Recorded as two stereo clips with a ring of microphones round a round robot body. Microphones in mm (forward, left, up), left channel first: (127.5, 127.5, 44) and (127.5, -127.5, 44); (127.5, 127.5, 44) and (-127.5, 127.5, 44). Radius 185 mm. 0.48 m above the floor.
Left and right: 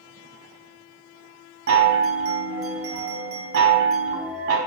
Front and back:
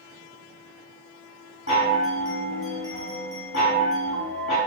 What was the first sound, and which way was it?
A chime, 55° right.